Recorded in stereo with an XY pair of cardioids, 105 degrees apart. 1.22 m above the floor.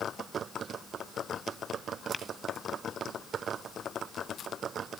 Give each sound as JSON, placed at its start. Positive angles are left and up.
{"t": 2.1, "sound": "tapping", "azimuth_deg": 30, "distance_m": 1.2}